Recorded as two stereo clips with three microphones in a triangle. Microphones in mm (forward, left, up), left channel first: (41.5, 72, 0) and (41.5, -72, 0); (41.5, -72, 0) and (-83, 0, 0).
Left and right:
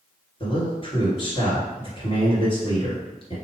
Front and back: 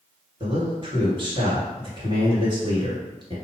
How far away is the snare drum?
No snare drum in this recording.